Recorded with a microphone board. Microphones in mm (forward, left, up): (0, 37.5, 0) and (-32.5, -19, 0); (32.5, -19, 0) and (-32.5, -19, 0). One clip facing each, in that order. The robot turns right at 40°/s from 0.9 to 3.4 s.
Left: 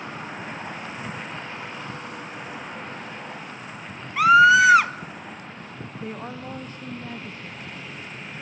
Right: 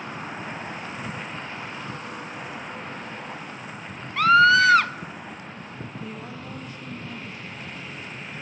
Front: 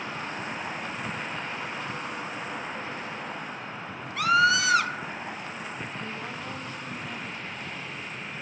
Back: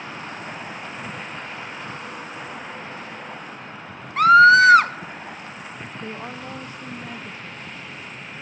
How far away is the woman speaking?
About 0.9 m.